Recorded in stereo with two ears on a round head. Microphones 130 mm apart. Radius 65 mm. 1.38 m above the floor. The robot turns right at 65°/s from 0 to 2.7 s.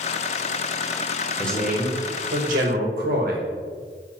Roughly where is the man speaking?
Behind.